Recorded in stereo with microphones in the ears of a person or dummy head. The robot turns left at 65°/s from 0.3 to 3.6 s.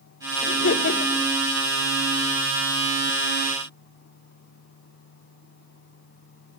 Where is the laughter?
95° left, 3.5 m; by 1.3 s 40° left, 3.5 m.